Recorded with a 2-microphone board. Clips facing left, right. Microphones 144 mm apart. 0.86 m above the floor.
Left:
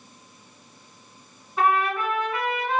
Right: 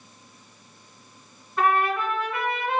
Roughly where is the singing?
I don't hear singing.